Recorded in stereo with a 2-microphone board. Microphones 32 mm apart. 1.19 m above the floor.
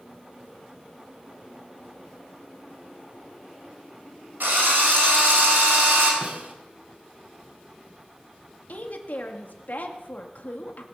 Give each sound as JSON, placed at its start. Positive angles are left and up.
{"t": 4.4, "sound": "a drill", "side_deg": -80, "distance_m": 4.5}
{"t": 6.2, "sound": "a snare drum", "side_deg": -50, "distance_m": 1.5}
{"t": 8.7, "sound": "a woman speaking", "side_deg": 65, "distance_m": 1.7}